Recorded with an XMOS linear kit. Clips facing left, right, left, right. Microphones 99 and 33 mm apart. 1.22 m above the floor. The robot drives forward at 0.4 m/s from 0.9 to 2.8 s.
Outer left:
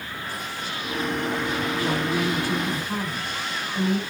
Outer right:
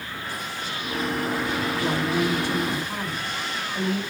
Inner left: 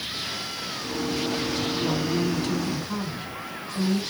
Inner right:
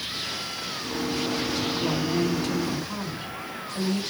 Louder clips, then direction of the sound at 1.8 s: Outer right 1 dB, even; centre (ahead or behind).